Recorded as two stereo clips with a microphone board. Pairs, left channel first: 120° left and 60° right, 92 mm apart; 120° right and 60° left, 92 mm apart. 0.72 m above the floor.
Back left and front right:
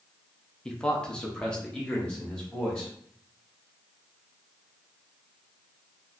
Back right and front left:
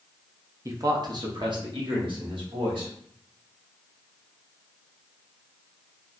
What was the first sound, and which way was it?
A man speaking, 45° left.